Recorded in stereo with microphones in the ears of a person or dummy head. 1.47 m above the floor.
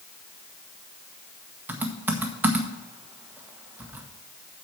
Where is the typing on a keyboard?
10° right (ahead or behind), 1.1 m.